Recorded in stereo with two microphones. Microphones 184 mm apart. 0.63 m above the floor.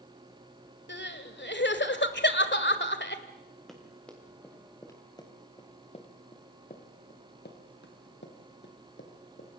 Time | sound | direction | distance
0.9 | crying | 75° left (ahead or behind) | 1.7 m
3.7 | running footsteps | centre (ahead or behind) | 5.5 m